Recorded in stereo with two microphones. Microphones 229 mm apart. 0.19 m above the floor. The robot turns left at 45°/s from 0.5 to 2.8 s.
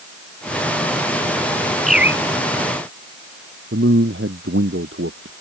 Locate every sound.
1.9 s a bird: centre (ahead or behind); by 2.2 s 15° right (ahead or behind)
3.7 s a man speaking: 60° right (ahead or behind)